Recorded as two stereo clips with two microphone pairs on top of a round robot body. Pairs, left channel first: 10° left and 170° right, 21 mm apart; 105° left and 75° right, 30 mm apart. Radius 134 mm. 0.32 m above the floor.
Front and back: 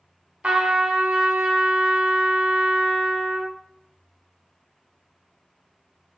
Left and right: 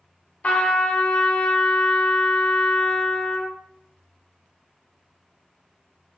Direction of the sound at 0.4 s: 155° left.